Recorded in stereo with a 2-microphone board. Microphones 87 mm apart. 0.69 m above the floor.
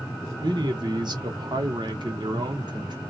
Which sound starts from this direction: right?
A man speaking, at 0.4 s.